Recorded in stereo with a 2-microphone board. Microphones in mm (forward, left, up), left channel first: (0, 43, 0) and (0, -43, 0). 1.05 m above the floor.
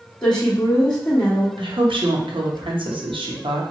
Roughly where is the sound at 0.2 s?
Centre.